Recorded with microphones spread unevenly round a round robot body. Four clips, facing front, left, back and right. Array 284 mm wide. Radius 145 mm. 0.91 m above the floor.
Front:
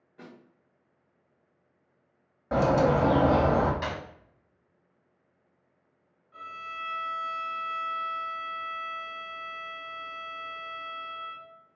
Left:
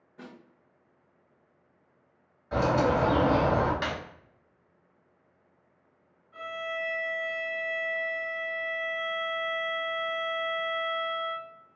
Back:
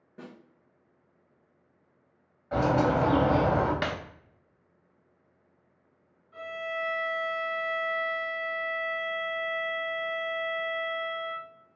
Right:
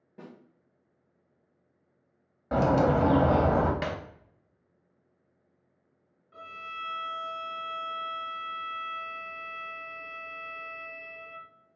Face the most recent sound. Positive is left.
turn(degrees=-115)